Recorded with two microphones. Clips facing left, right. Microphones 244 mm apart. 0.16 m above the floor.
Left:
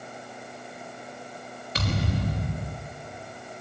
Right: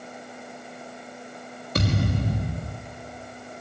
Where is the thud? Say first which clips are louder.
Right 4 dB; 50° right (ahead or behind), 6.5 m.